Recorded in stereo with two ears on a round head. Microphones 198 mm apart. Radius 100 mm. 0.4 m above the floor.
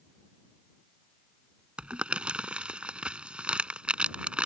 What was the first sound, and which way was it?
Crumpling, 5° right (ahead or behind).